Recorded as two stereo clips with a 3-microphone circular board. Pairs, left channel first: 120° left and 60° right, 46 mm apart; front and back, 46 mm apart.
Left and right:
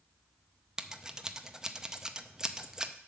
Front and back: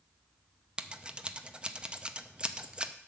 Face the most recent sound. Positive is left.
turn(degrees=-125)